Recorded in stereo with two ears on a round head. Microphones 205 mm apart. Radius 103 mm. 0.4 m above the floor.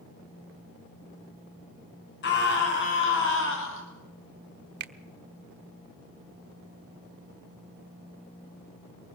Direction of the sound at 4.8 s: 45° right (ahead or behind).